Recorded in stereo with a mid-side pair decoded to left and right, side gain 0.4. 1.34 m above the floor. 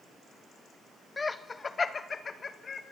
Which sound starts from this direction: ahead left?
Laughter, at 1.2 s.